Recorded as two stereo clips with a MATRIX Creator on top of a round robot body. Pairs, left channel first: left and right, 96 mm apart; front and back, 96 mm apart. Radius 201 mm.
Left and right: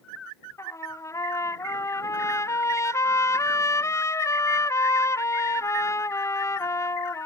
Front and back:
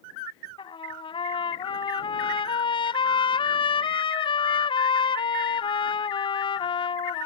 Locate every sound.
0.6 s a trumpet: 30° left